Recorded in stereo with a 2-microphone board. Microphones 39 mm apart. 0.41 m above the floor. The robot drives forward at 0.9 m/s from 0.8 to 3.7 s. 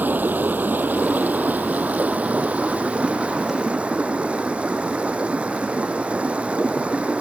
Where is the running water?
55° right (ahead or behind); by 7.2 s 35° right (ahead or behind).